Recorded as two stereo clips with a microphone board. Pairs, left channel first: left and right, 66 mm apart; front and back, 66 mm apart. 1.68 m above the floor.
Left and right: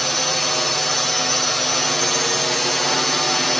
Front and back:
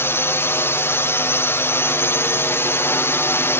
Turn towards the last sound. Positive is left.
turn(degrees=5)